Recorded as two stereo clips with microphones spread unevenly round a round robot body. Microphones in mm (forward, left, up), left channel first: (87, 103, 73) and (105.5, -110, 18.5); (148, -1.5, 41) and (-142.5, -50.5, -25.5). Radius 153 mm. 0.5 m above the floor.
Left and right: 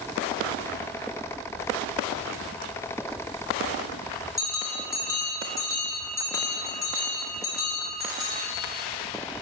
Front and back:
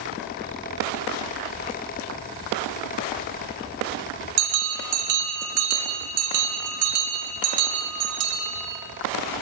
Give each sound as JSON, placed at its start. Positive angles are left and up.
{"t": 4.4, "sound": "a bell", "azimuth_deg": 180, "distance_m": 0.8}